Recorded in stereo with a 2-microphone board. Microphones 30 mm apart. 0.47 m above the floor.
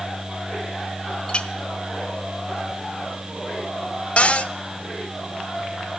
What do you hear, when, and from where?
1.3 s a clink: 35° left (ahead or behind), 0.9 m
4.2 s a cupboard door: 45° left (ahead or behind), 0.6 m